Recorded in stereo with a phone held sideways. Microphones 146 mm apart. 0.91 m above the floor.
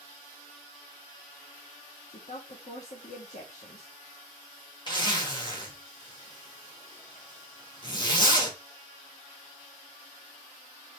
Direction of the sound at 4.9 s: 30° left (ahead or behind).